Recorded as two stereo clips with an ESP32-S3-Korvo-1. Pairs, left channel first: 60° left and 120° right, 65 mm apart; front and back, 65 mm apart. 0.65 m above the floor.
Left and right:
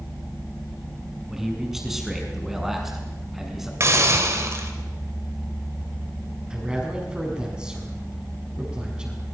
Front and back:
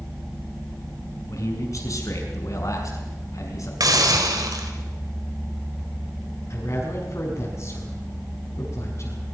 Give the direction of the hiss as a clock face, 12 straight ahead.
5 o'clock.